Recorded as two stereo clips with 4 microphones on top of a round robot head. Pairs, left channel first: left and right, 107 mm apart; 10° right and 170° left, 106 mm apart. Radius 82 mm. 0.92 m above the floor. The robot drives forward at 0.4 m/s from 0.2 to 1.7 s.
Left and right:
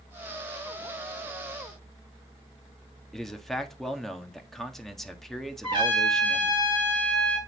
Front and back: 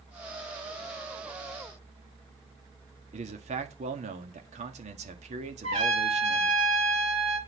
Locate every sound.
3.1 s a man speaking: 175° left, 1.5 m
5.6 s a trumpet: 135° right, 4.5 m